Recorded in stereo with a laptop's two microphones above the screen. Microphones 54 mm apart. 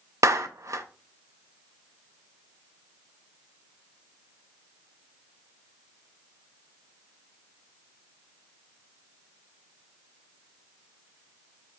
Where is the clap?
65° right (ahead or behind), 0.5 m.